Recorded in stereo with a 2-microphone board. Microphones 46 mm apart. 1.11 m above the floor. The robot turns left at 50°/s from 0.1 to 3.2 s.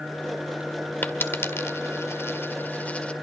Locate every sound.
1.0 s a dropped coin: 50° left (ahead or behind), 1.9 m; by 3.1 s 25° left (ahead or behind), 1.9 m